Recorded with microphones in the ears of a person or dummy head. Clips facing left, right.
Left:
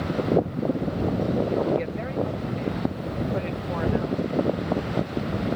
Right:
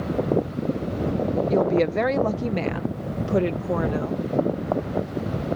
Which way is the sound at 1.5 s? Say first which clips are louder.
Right 4 dB; 45° right (ahead or behind).